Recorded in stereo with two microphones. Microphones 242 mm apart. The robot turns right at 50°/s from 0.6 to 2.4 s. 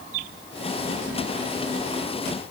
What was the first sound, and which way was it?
Only background noise.